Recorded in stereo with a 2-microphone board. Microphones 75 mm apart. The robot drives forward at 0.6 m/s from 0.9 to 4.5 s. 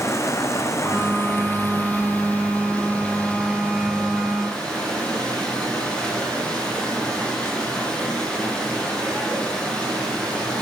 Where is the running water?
40° left (ahead or behind), 0.7 m; by 10.6 s 10° left (ahead or behind), 2.5 m.